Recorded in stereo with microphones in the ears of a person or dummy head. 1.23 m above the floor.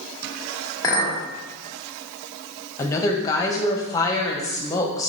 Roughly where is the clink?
Centre.